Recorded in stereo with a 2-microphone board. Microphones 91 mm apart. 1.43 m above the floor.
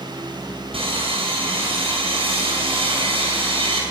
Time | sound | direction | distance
0.7 | sawing | 80° right | 6.5 m